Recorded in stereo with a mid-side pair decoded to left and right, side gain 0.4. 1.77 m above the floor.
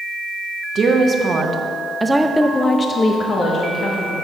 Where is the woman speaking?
55° right, 1.0 m; by 4.2 s 75° left, 1.1 m.